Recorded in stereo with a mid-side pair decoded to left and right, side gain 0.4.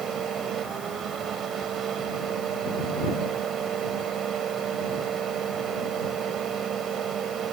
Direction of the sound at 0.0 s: 70° right.